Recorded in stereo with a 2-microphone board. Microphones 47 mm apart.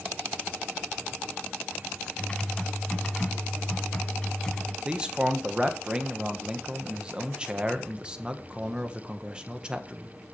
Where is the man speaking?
20° right (ahead or behind), 1.6 m.